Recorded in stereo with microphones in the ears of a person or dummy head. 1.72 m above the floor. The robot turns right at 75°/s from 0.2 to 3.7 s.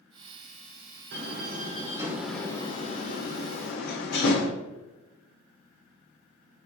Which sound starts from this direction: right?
A door slam, at 1.1 s.